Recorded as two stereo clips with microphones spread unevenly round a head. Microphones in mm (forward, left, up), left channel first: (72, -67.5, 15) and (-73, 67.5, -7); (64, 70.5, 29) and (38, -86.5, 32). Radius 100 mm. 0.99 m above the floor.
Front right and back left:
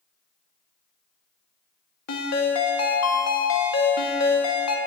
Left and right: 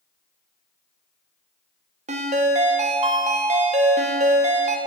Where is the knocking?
No knocking in this recording.